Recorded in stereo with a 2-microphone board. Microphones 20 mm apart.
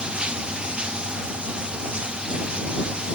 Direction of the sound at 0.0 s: 60° right (ahead or behind).